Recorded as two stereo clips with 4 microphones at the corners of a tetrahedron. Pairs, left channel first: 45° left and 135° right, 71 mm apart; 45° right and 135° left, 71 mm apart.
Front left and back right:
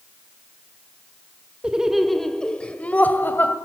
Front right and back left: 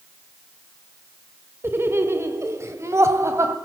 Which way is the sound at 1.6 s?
160° left.